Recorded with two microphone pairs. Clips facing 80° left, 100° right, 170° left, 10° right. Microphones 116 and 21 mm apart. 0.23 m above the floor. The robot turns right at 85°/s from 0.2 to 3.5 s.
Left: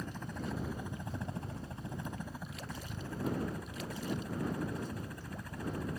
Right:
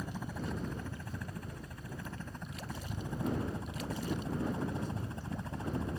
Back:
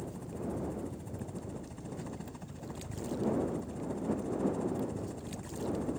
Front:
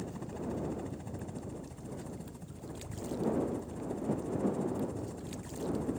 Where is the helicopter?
30° right; by 6.0 s 110° right.